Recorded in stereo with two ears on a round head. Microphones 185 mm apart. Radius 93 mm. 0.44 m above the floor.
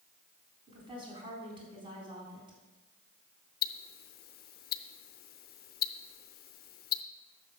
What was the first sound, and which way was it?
A woman speaking, 25° right (ahead or behind).